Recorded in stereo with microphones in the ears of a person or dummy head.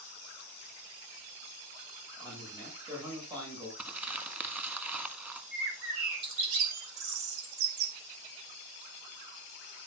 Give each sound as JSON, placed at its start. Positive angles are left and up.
{"t": 2.2, "sound": "a man speaking", "side_deg": -10, "distance_m": 7.0}
{"t": 3.8, "sound": "crumpling", "side_deg": -15, "distance_m": 1.3}
{"t": 5.5, "sound": "a bird", "side_deg": -65, "distance_m": 1.9}